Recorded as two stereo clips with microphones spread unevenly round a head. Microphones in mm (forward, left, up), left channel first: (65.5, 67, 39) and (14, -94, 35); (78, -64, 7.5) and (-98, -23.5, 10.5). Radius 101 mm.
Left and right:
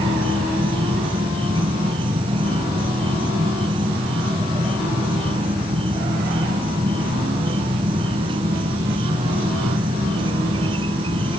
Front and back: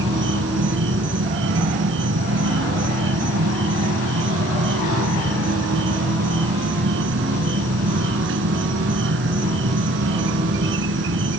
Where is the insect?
175° right.